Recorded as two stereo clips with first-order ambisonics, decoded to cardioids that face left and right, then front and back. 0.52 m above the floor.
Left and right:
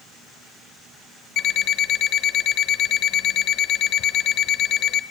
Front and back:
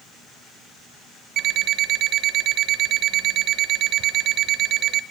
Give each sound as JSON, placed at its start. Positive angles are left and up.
{"t": 1.4, "sound": "an alarm clock", "azimuth_deg": 135, "distance_m": 1.0}